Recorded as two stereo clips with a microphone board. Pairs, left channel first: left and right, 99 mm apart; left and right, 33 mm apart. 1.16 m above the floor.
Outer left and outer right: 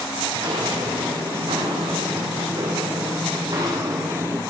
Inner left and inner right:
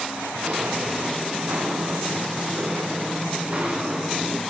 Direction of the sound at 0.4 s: 70° right (ahead or behind).